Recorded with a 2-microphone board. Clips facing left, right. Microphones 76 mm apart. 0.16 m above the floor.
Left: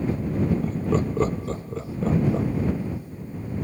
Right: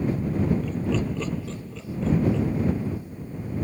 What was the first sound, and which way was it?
Laughter, 40° left (ahead or behind).